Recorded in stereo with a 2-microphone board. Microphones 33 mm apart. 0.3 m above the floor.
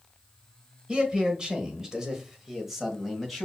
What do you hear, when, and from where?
0.9 s a man speaking: 25° right (ahead or behind), 1.2 m; by 3.5 s centre (ahead or behind), 1.7 m